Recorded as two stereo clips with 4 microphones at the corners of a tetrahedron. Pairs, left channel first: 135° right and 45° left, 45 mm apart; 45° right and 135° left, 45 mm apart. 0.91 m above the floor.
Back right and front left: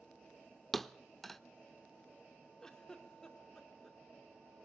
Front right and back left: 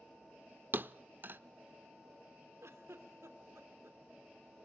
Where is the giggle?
145° left, 2.5 m.